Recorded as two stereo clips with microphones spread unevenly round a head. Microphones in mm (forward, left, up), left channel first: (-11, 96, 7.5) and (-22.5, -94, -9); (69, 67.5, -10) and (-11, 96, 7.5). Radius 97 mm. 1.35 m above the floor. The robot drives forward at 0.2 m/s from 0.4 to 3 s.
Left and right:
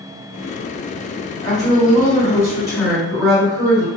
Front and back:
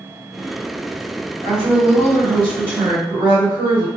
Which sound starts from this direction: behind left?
A woman speaking, at 1.4 s.